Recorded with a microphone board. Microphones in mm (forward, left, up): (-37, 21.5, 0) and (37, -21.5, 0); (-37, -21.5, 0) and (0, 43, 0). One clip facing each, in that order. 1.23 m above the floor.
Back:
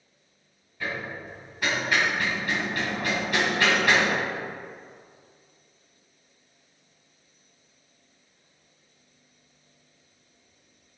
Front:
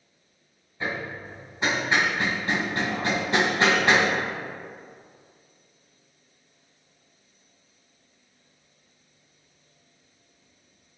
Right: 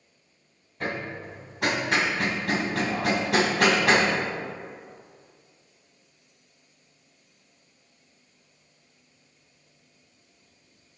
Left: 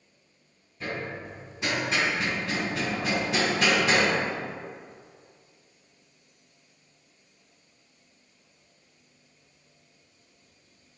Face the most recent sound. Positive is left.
turn(degrees=-95)